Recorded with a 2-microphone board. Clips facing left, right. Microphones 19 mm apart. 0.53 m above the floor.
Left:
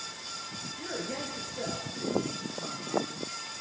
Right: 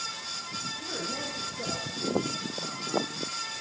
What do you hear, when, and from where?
0.8 s a man speaking: 75° left (ahead or behind), 8.5 m